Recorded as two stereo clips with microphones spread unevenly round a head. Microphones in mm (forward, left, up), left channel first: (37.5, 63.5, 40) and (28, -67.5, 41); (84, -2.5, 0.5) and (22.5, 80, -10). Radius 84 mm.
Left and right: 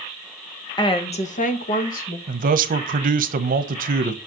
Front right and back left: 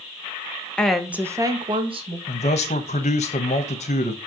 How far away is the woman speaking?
About 1.3 m.